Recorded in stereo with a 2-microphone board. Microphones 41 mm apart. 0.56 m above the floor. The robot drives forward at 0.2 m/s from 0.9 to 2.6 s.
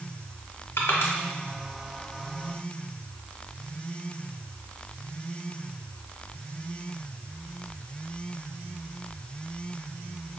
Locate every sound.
0.8 s crushing: 65° left (ahead or behind), 0.8 m; by 1.1 s 70° left (ahead or behind), 0.8 m